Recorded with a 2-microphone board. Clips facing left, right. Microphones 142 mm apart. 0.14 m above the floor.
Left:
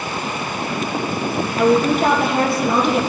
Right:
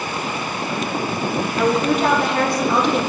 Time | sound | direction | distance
1.6 | a woman speaking | 5° left (ahead or behind) | 4 m